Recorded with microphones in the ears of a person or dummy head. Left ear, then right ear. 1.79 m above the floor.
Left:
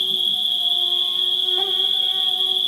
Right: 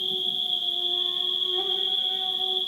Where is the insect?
60° left (ahead or behind), 1.5 m.